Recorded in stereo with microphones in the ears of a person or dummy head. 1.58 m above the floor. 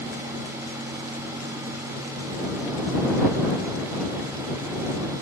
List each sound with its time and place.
Only background noise.